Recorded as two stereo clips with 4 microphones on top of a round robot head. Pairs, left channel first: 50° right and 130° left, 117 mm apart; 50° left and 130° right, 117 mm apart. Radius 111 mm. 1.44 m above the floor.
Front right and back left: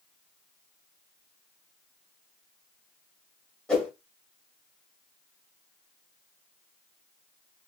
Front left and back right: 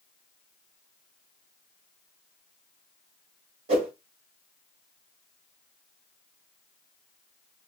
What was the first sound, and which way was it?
A whoosh, 135° right.